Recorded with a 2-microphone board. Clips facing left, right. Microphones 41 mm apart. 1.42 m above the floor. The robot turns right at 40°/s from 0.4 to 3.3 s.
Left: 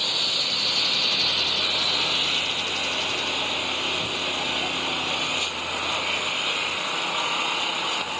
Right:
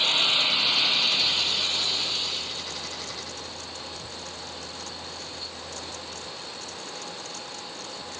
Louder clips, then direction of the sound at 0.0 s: Right 3 dB; 25° right.